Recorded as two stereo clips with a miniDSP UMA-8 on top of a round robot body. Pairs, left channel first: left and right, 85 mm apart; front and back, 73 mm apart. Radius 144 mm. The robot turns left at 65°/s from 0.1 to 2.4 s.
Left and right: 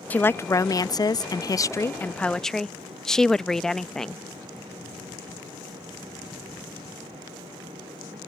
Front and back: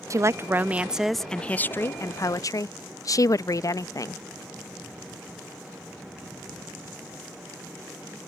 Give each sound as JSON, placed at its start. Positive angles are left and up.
{"t": 0.1, "sound": "a woman speaking", "azimuth_deg": 155}